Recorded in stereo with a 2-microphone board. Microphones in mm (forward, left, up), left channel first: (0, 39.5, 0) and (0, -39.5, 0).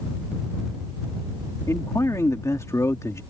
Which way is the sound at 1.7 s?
40° left (ahead or behind).